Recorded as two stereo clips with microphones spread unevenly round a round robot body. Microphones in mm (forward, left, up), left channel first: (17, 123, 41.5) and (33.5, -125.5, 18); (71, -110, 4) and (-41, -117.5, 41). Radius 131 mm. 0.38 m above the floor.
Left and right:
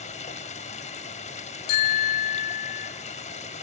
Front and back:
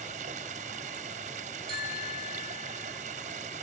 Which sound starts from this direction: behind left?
Running water, at 0.0 s.